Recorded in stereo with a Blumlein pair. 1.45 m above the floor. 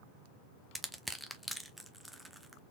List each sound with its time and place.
0.8 s crushing: 5° right, 0.7 m